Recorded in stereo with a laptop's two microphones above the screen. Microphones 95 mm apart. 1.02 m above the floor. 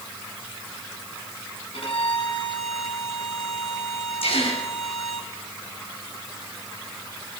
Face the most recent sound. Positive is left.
turn(degrees=85)